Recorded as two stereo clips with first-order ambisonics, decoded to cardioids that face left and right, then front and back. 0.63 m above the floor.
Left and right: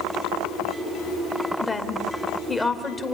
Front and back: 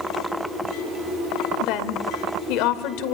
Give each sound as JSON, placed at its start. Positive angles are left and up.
{"t": 1.6, "sound": "a woman speaking", "azimuth_deg": 10, "distance_m": 2.0}